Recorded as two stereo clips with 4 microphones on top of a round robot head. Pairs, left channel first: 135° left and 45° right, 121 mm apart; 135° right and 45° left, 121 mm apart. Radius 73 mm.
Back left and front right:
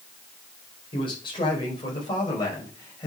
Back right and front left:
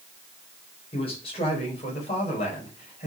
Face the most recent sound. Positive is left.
turn(degrees=-170)